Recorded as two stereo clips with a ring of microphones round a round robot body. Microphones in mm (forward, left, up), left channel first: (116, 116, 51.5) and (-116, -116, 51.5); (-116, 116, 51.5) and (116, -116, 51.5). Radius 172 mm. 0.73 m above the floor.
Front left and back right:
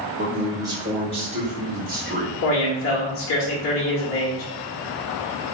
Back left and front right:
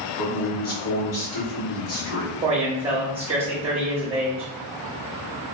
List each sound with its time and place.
0.2 s a man speaking: 140° left, 1.6 m; by 2.3 s 165° left, 2.5 m
2.4 s a man speaking: 20° left, 1.0 m